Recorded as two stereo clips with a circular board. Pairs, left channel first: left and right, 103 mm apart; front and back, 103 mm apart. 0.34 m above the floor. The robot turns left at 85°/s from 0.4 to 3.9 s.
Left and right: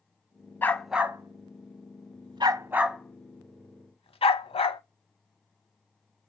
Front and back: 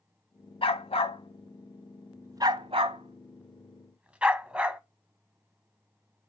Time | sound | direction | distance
0.6 | a dog barking | 20° left | 1.0 m